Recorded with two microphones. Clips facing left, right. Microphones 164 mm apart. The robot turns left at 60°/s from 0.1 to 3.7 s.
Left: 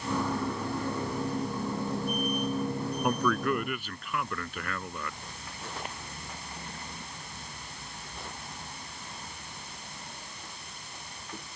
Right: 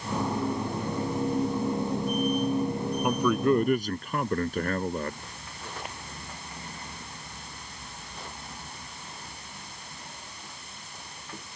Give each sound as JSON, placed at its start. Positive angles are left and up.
{"t": 3.0, "sound": "a man speaking", "azimuth_deg": 0}